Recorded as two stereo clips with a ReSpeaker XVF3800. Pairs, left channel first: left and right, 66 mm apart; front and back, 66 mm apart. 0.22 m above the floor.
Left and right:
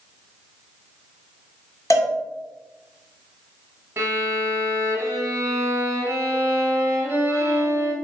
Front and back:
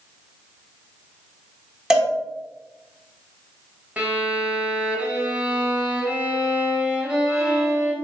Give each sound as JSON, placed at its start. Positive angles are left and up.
{"t": 1.9, "sound": "a cowbell", "azimuth_deg": 100, "distance_m": 1.0}
{"t": 4.0, "sound": "a violin", "azimuth_deg": -115, "distance_m": 0.9}